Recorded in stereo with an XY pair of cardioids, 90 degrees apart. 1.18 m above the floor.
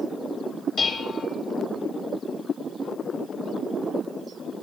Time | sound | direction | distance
0.8 | dishes clattering | 65° left | 1.4 m